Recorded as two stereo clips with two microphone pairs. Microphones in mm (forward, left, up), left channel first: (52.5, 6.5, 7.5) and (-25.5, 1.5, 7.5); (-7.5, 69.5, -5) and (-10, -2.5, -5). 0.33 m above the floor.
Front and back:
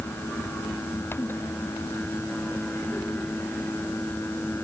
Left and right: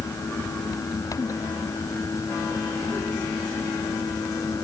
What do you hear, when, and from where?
Only background noise.